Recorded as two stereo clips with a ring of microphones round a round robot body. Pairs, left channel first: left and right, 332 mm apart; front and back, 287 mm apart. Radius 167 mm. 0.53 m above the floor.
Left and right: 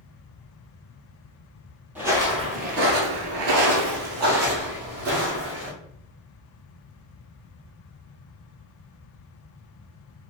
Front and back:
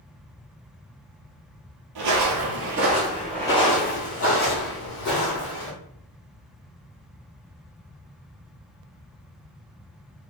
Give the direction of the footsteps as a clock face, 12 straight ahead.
6 o'clock.